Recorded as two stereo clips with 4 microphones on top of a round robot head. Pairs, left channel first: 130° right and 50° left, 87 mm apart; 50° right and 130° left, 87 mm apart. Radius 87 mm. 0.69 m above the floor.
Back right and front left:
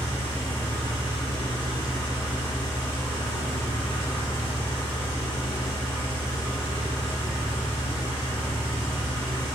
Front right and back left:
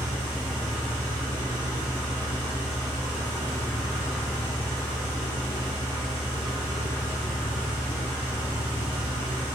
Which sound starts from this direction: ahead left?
An engine running, at 0.0 s.